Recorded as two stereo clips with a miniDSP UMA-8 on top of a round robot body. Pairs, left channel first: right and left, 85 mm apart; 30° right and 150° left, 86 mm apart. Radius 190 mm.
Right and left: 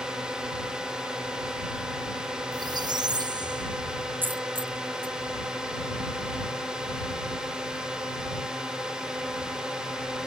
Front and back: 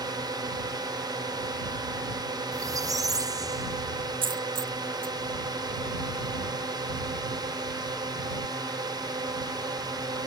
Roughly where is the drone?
Behind.